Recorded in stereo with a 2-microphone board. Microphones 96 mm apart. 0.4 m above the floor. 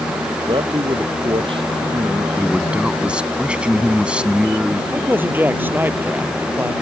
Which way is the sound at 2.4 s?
10° right (ahead or behind).